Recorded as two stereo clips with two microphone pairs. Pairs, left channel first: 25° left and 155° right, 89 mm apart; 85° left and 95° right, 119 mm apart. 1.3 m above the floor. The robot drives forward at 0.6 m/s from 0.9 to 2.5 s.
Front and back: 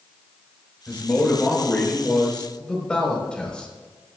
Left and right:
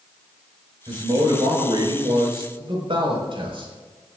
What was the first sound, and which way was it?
A man speaking, 45° right.